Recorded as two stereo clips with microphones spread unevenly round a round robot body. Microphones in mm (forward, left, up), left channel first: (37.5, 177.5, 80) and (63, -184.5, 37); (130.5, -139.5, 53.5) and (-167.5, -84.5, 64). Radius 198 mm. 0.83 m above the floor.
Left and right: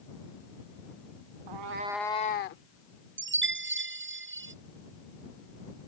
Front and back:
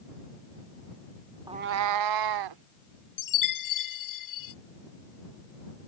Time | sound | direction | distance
1.5 | a cat meowing | 115° right | ?
3.2 | a chime | 25° right | ?